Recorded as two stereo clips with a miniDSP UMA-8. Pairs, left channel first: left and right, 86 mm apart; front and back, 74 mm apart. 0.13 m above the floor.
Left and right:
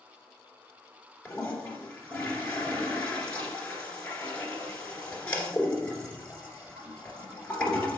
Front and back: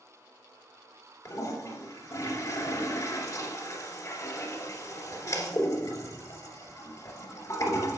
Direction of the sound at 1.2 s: 20° left.